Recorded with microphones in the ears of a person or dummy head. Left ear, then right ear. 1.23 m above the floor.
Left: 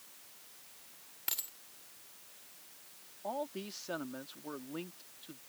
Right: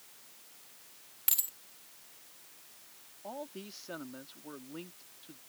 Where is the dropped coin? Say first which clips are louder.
Right 4 dB; 5° right (ahead or behind).